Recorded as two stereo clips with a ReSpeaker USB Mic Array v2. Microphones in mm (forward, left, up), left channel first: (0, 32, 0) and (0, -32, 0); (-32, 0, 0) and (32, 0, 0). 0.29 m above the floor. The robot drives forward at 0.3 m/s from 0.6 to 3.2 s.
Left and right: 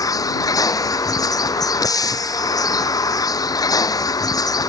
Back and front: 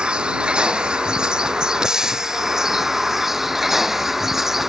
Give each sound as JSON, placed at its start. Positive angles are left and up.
{"t": 0.0, "sound": "a vehicle", "azimuth_deg": 75}